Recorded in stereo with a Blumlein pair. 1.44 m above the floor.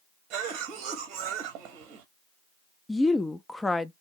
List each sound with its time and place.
0.3 s a cough: 35° right, 0.8 m
2.9 s a woman speaking: 10° left, 0.5 m